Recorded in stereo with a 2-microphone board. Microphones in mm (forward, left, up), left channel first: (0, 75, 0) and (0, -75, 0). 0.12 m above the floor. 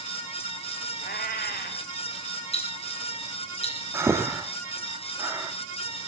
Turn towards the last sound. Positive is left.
turn(degrees=-15)  # may be behind; listen again after turning